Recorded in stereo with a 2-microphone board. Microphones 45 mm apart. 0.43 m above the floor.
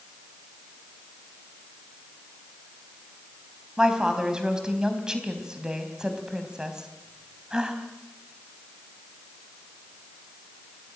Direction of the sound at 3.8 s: 15° right (ahead or behind).